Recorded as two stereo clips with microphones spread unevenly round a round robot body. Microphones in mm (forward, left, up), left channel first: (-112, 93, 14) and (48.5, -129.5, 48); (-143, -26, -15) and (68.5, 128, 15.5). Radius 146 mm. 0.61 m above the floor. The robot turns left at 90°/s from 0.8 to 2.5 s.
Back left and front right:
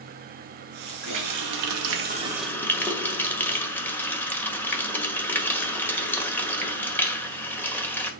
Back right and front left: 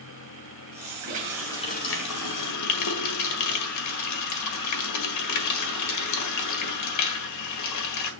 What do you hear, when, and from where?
1.0 s a running tap: 20° right, 1.6 m; by 8.1 s 150° right, 1.6 m